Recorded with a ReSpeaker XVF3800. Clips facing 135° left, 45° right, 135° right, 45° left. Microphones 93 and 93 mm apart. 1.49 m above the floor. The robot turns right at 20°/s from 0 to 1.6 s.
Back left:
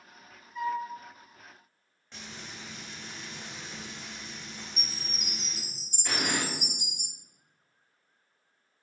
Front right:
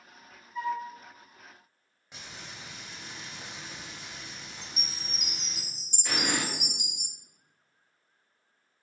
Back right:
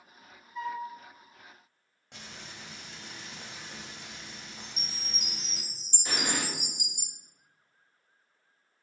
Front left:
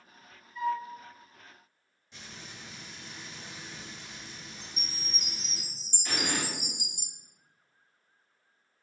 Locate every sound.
0.6 s a flute: 135° right, 0.9 m; by 0.8 s 130° right, 0.9 m
2.1 s frying: 125° right, 0.7 m
4.6 s a chime: 170° right, 0.5 m
6.0 s an explosion: 130° right, 1.1 m